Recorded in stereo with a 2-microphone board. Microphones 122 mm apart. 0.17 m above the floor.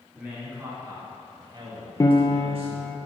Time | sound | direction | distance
0.1 | a man speaking | 10° right (ahead or behind) | 2.0 m
2.0 | a piano | 30° left (ahead or behind) | 0.6 m